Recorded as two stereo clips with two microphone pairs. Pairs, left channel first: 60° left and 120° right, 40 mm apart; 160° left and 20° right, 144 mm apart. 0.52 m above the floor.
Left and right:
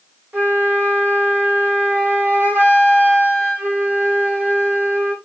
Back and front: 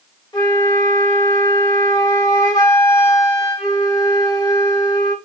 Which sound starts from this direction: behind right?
A flute, at 0.3 s.